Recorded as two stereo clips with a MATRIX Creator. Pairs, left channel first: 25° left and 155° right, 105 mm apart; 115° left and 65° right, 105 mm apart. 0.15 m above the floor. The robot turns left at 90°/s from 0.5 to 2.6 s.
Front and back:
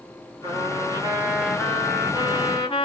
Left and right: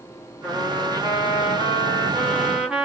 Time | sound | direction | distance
0.4 | a trumpet | 155° right | 1.4 m